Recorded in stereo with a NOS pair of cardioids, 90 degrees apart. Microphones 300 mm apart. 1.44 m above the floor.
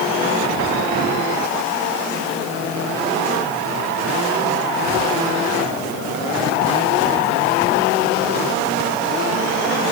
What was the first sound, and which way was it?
Only background noise.